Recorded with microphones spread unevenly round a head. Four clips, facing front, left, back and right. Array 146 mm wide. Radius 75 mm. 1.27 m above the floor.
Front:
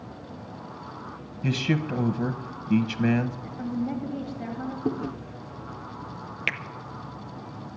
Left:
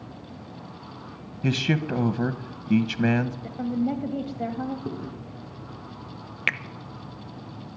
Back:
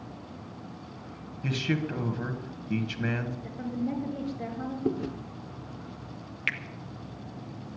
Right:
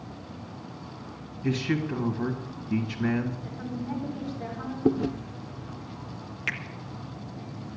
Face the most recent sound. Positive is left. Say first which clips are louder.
# left 5 dB, front 2 dB
turn(degrees=50)